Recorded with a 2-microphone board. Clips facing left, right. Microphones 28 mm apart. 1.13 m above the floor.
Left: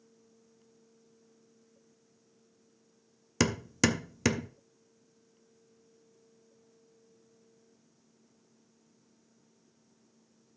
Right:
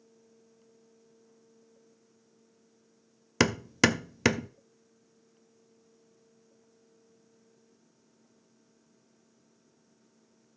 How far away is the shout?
I don't hear a shout.